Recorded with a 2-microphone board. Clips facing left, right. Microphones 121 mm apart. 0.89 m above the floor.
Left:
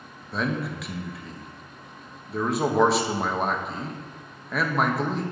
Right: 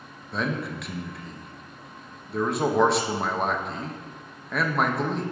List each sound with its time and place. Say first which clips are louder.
0.3 s a man speaking: left 1 dB; centre (ahead or behind), 0.9 m